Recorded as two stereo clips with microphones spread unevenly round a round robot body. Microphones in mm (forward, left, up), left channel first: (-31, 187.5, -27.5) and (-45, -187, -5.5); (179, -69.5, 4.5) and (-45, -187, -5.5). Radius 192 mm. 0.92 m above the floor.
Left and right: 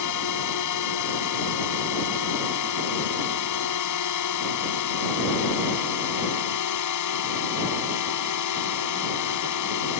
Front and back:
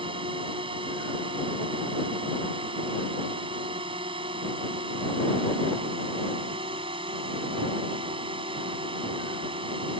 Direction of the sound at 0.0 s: 130° left.